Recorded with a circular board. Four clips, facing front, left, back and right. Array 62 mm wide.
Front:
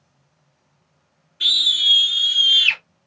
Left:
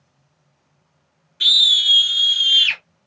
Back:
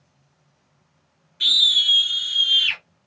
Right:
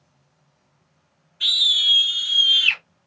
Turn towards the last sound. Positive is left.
turn(degrees=70)